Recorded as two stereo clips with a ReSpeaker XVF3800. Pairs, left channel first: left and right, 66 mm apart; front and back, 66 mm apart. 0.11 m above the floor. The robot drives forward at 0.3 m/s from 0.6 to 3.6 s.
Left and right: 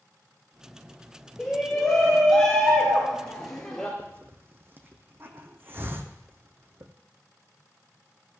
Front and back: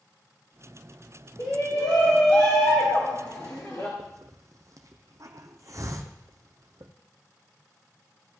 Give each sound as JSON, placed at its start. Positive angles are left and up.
{"t": 1.4, "sound": "a shout", "azimuth_deg": 10, "distance_m": 2.5}
{"t": 4.0, "sound": "a hiss", "azimuth_deg": -140, "distance_m": 1.0}